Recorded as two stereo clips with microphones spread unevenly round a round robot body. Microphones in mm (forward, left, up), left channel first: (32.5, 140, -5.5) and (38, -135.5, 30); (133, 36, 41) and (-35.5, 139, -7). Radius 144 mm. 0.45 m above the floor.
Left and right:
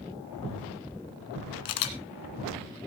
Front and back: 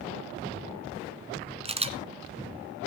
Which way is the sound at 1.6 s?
85° left.